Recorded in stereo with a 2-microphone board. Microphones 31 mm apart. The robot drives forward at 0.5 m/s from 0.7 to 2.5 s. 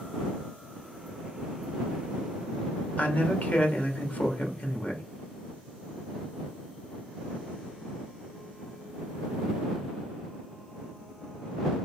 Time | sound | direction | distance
3.0 | a man speaking | 40° left (ahead or behind) | 1.2 m